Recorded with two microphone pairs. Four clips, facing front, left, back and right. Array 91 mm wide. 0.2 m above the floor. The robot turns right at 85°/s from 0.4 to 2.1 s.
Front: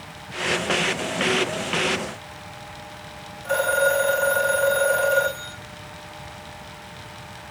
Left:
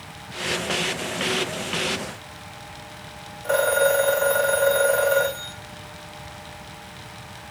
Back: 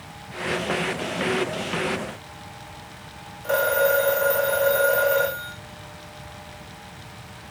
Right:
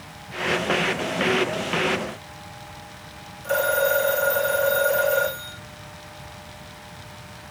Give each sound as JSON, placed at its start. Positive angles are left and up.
{"t": 3.4, "sound": "a phone ringing", "azimuth_deg": 115, "distance_m": 6.5}